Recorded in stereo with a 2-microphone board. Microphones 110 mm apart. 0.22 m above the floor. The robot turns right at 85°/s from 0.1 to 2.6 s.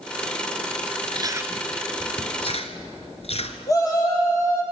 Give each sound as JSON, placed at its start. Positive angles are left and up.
{"t": 1.1, "sound": "chewing", "side_deg": -45, "distance_m": 1.4}
{"t": 3.7, "sound": "a shout", "side_deg": 30, "distance_m": 7.0}